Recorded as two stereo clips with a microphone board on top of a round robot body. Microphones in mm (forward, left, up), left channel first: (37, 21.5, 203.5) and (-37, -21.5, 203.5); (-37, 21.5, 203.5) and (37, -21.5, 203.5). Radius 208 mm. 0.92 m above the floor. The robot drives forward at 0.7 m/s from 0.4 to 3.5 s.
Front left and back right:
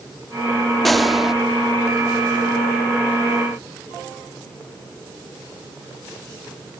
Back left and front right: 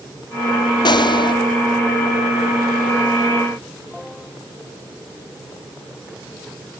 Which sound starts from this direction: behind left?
A gunshot, at 0.8 s.